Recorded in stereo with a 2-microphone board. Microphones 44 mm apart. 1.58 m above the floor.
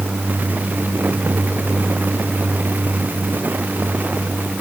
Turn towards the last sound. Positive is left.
No sound to turn to.